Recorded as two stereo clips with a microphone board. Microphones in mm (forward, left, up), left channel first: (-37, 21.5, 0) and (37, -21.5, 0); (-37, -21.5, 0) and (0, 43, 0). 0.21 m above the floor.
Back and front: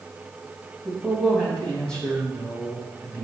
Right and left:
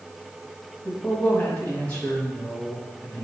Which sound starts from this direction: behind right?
A man speaking, at 0.8 s.